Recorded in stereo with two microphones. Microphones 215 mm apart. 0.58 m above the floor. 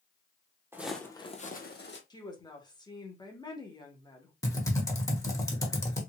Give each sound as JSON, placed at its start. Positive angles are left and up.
{"t": 0.7, "sound": "footsteps", "side_deg": -10, "distance_m": 0.7}
{"t": 2.1, "sound": "a woman speaking", "side_deg": 20, "distance_m": 0.9}
{"t": 4.4, "sound": "typing on a keyboard", "side_deg": 15, "distance_m": 0.9}